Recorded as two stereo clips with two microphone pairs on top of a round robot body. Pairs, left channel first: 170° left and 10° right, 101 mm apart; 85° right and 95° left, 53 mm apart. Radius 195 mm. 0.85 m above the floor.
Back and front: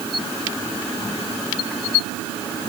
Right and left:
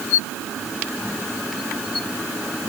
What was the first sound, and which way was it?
Only background noise.